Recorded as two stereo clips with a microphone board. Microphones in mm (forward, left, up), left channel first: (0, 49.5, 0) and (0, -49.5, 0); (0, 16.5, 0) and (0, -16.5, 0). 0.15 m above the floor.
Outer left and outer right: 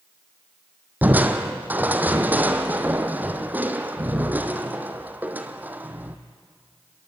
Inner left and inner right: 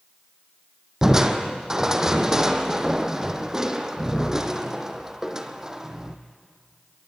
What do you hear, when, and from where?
1.0 s crushing: 15° right (ahead or behind), 1.4 m